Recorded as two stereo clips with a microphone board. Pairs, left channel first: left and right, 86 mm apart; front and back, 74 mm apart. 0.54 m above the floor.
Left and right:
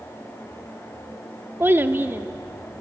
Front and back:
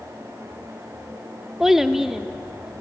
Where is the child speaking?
100° right, 0.8 m.